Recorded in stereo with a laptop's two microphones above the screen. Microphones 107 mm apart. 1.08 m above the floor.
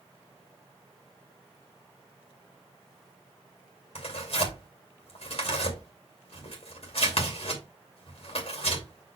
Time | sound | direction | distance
4.0 | tearing paper | 60° left (ahead or behind) | 2.5 m